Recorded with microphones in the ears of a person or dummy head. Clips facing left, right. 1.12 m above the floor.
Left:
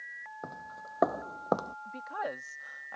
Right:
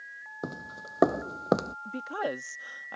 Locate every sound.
0.4 s footsteps: 45° right (ahead or behind); by 1.8 s 25° right (ahead or behind)
1.9 s a woman speaking: 45° right (ahead or behind)